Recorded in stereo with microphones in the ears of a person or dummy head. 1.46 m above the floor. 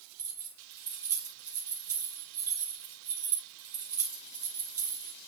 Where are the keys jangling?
15° right (ahead or behind), 1.3 m.